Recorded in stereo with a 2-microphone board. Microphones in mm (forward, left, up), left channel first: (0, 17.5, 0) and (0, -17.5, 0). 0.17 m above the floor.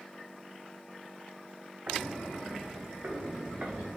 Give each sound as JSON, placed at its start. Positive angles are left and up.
{"t": 1.9, "sound": "footsteps", "side_deg": -60, "distance_m": 1.3}